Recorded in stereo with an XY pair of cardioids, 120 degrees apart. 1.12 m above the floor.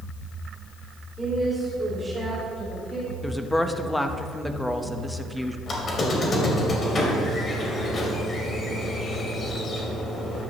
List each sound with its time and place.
1.2 s a woman speaking: 15° right, 3.5 m; by 3.1 s 10° right, 5.5 m
3.2 s a woman speaking: 5° left, 0.9 m
5.7 s a squeak: 35° left, 2.5 m